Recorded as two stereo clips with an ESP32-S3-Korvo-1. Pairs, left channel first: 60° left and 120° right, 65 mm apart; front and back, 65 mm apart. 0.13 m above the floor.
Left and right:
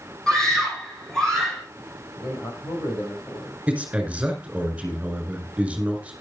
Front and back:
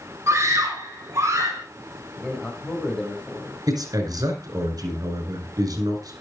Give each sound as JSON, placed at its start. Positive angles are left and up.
{"t": 0.3, "sound": "a scream", "azimuth_deg": 135, "distance_m": 4.5}
{"t": 2.2, "sound": "a man speaking", "azimuth_deg": 75, "distance_m": 6.0}
{"t": 3.7, "sound": "a man speaking", "azimuth_deg": 165, "distance_m": 6.0}